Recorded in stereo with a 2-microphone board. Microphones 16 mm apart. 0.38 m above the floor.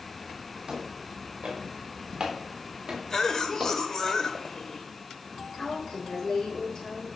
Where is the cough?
35° left (ahead or behind), 1.2 m.